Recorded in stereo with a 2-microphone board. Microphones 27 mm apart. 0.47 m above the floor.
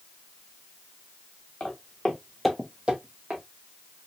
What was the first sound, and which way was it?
Footsteps, 50° left (ahead or behind).